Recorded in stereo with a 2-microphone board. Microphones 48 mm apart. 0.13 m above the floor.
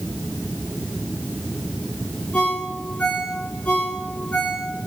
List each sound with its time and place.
2.3 s a ringtone: 30° left (ahead or behind), 4.5 m